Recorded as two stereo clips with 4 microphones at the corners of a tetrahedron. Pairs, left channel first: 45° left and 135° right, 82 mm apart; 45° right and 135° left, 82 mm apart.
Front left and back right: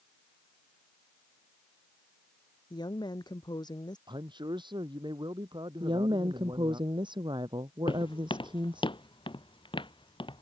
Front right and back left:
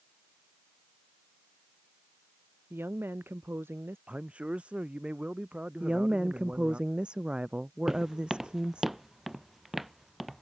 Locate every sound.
2.7 s a woman speaking: 75° left
4.1 s a man speaking: 150° right
5.8 s a woman speaking: 150° right
7.9 s footsteps: 50° left; by 10.4 s 45° left